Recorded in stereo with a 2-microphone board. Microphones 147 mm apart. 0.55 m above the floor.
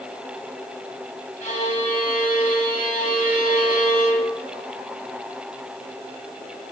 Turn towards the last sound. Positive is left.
turn(degrees=70)  # may be behind; listen again after turning